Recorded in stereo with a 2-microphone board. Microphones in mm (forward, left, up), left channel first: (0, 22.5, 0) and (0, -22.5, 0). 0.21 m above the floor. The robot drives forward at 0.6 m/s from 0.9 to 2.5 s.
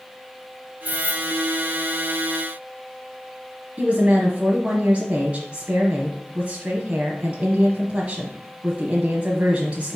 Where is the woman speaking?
30° right (ahead or behind), 1.1 m.